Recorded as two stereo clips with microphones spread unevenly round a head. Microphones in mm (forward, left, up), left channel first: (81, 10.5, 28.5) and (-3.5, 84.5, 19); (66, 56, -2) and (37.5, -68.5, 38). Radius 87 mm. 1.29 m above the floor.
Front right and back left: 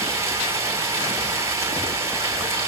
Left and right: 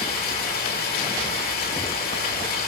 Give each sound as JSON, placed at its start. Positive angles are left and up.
{"t": 0.0, "sound": "running water", "azimuth_deg": 75, "distance_m": 6.5}